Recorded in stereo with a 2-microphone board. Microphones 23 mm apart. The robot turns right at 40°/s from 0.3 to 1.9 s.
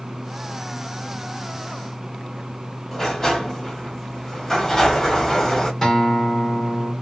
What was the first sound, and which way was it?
A sliding door, 20° left (ahead or behind).